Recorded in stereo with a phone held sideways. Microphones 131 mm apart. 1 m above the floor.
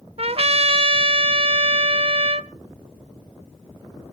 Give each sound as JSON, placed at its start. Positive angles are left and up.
{"t": 0.2, "sound": "a trumpet", "side_deg": -50, "distance_m": 0.6}